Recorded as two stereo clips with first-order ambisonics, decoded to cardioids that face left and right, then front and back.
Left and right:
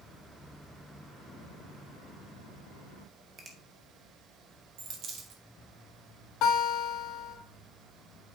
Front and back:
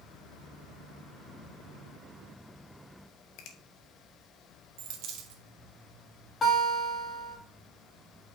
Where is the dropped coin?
140° right, 1.3 m.